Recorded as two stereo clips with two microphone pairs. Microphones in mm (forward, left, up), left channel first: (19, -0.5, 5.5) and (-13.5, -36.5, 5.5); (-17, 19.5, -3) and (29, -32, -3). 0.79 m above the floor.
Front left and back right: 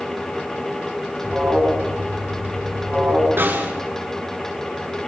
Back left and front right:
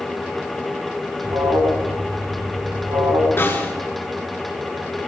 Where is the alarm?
60° right, 8.5 m.